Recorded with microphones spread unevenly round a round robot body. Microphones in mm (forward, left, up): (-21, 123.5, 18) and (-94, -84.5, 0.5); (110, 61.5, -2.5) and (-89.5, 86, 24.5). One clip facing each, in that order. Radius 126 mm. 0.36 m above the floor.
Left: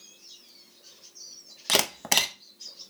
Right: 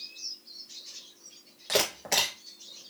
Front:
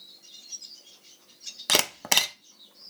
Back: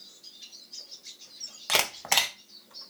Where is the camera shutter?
45° left, 0.5 m.